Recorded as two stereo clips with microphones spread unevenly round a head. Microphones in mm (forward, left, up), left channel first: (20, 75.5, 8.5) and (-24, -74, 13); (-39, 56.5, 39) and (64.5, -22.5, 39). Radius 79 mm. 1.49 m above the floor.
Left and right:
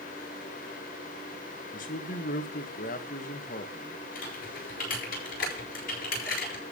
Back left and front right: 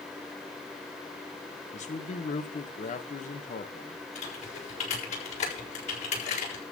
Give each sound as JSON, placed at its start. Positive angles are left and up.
{"t": 1.7, "sound": "a man speaking", "azimuth_deg": 110, "distance_m": 2.0}
{"t": 4.2, "sound": "typing on a keyboard", "azimuth_deg": 110, "distance_m": 7.0}